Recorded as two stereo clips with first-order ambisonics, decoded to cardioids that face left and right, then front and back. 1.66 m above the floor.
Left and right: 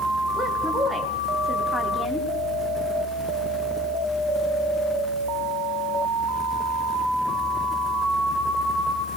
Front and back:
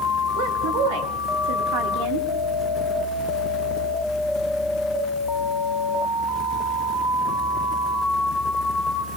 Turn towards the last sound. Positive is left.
turn(degrees=-175)